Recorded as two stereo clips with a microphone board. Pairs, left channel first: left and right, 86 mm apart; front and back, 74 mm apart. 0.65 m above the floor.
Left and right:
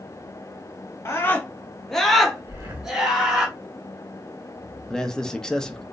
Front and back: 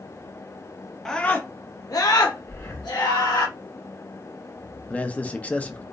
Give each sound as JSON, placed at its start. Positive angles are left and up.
{"t": 1.1, "sound": "a scream", "azimuth_deg": 75, "distance_m": 0.5}
{"t": 2.5, "sound": "breathing", "azimuth_deg": -40, "distance_m": 1.1}
{"t": 4.9, "sound": "a man speaking", "azimuth_deg": 20, "distance_m": 0.5}